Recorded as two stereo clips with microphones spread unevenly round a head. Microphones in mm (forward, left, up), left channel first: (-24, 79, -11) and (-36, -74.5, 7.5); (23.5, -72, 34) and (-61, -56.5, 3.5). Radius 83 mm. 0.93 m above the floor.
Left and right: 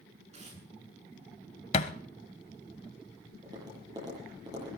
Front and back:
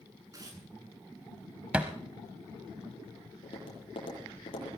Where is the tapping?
25° right, 9 m.